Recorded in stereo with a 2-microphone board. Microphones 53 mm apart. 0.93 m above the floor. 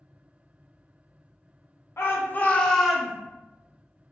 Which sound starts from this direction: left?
A shout, at 2.0 s.